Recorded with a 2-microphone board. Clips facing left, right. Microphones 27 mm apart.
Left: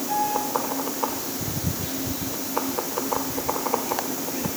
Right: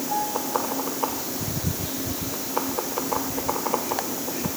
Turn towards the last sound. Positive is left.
turn(degrees=70)  # may be behind; listen again after turning